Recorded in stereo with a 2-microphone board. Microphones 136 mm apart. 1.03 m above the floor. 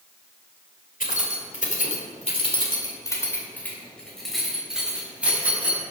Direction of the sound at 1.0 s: 85° left.